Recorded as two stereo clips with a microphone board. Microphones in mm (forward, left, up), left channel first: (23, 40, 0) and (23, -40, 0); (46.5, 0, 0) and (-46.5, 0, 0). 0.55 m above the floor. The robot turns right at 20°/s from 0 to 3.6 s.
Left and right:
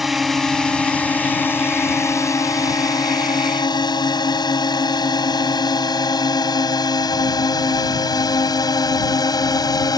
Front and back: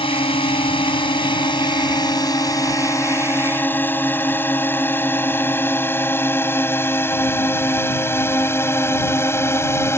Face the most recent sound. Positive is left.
turn(degrees=60)